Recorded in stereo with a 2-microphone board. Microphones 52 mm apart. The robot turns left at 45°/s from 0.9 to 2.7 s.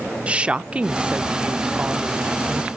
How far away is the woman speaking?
About 0.7 m.